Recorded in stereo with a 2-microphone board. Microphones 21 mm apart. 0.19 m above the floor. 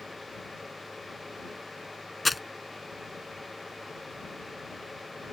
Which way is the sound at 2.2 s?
Centre (ahead or behind).